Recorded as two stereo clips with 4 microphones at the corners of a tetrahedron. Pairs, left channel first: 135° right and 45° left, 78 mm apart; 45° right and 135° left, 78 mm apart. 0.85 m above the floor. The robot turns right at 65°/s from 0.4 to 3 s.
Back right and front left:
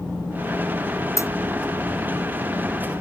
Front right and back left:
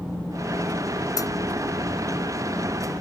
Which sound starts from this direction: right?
A dropped coin, at 1.2 s.